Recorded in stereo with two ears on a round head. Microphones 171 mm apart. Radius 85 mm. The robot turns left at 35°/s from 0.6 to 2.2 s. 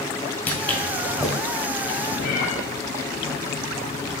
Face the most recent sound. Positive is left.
turn(degrees=55)  # may be behind; listen again after turning